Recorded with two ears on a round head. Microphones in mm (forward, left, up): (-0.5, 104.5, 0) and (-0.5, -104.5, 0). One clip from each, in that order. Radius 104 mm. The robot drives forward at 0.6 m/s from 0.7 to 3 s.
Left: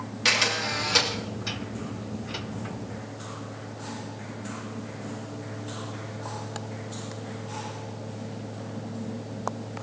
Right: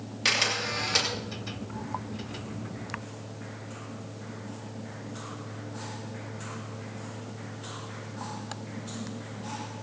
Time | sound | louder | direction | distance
0.2 | a camera shutter | left 3 dB | centre (ahead or behind) | 2.5 m